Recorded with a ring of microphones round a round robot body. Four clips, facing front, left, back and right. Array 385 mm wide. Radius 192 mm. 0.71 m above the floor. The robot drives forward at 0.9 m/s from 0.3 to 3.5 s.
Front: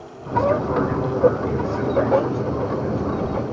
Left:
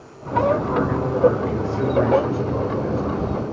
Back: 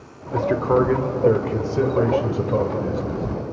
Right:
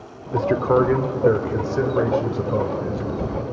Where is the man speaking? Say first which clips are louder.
Right 1 dB, back 1 dB; 110° right, 1.9 m; by 3.3 s 155° right, 4 m.